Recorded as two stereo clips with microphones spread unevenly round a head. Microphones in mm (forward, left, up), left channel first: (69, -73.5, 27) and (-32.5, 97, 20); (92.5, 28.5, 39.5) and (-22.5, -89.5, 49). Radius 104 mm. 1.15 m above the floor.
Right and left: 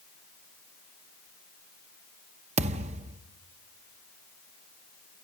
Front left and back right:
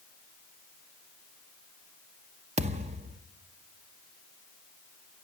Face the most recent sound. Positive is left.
turn(degrees=175)